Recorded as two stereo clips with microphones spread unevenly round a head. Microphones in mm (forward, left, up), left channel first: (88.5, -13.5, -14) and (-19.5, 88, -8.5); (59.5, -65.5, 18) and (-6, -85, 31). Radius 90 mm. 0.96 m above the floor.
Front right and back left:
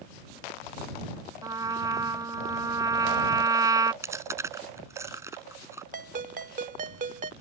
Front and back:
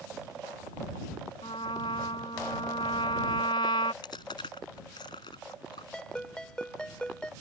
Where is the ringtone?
105° left.